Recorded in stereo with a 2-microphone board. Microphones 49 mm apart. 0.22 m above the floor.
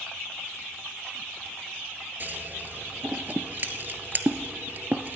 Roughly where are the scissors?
Right.